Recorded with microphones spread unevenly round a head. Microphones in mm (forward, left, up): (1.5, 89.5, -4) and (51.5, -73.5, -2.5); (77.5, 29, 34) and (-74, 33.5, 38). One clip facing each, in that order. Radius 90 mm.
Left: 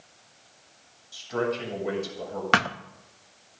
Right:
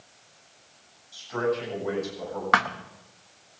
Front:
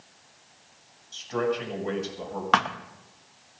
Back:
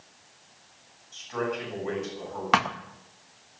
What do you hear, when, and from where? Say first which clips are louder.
1.1 s a man speaking: right 1 dB, front 4 dB; 50° left, 7 m
2.5 s a thud: left 1 dB, even; 105° left, 0.5 m